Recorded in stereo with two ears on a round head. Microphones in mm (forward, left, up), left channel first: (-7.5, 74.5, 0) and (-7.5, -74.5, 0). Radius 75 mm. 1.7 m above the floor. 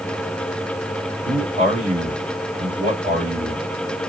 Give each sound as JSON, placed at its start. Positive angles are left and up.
{"t": 1.2, "sound": "a man speaking", "side_deg": -55, "distance_m": 3.0}